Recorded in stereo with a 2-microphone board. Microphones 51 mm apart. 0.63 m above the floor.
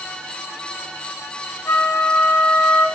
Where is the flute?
85° left, 3.5 m.